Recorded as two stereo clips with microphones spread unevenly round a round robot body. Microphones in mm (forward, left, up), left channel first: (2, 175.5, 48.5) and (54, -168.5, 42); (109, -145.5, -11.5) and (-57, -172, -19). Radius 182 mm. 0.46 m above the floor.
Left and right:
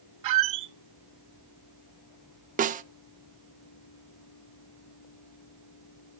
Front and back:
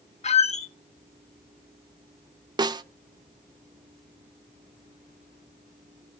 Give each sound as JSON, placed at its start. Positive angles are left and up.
{"t": 0.2, "sound": "a squeak", "azimuth_deg": -40, "distance_m": 0.9}
{"t": 2.6, "sound": "a snare drum", "azimuth_deg": -130, "distance_m": 0.5}